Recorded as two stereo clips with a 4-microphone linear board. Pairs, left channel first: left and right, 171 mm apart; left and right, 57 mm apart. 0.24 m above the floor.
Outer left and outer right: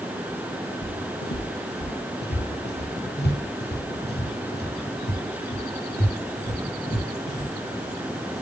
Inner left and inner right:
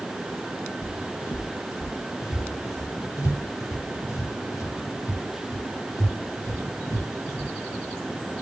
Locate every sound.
0.8 s footsteps: 60° left (ahead or behind), 1.7 m; by 7.5 s 65° left (ahead or behind), 6.5 m